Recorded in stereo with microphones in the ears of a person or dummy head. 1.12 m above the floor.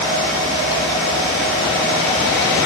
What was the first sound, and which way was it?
Only background noise.